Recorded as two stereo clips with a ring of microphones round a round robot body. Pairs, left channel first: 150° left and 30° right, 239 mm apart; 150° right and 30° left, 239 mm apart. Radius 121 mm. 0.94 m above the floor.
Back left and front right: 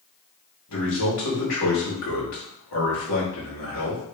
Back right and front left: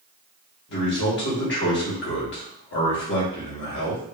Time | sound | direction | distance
0.7 | a man speaking | 165° left | 1.6 m